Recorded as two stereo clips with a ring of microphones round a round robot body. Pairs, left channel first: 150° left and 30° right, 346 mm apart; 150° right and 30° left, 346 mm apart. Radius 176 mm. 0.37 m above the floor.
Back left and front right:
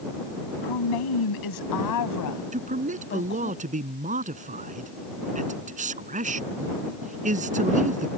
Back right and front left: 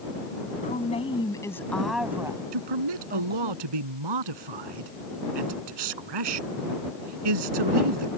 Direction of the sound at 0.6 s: 140° left.